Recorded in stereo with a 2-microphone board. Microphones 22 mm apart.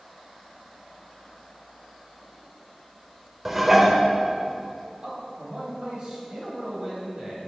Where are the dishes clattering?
15° right (ahead or behind), 0.7 m.